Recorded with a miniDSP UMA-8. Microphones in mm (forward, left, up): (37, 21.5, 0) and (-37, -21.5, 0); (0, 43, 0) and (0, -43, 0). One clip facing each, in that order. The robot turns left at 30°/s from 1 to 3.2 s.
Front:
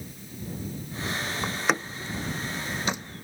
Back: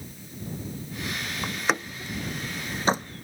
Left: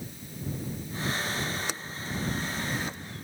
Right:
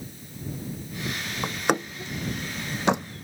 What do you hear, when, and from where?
1.4 s a door slam: 50° right; by 3.2 s 105° right